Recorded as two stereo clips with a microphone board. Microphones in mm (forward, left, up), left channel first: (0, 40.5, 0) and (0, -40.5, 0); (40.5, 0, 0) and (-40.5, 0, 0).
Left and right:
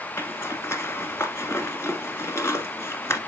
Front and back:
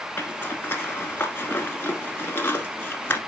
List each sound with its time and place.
0.2 s a zipper: 50° left, 1.5 m